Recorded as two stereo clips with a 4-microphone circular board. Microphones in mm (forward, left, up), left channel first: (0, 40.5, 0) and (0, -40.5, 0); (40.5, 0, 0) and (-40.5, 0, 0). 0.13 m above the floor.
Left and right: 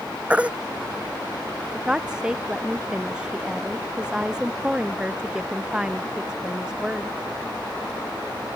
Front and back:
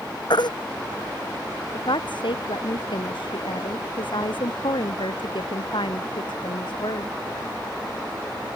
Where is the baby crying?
15° right.